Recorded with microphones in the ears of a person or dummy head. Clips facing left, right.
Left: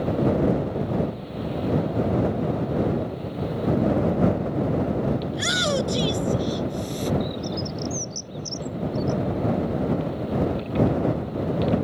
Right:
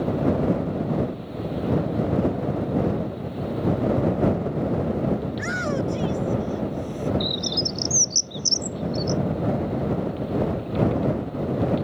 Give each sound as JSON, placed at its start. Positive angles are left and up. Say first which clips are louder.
{"t": 5.3, "sound": "a shout", "louder": "left 1 dB", "side_deg": 55}
{"t": 7.2, "sound": "a bird", "louder": "even", "side_deg": -55}